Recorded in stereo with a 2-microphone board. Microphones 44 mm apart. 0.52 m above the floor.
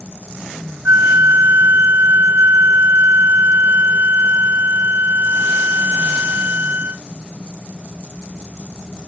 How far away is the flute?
About 0.7 m.